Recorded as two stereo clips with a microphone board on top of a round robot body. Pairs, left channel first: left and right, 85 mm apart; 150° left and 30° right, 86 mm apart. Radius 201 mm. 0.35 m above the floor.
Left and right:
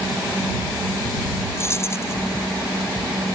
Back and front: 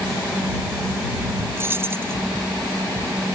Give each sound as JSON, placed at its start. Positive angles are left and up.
{"t": 1.6, "sound": "keys jangling", "azimuth_deg": 30}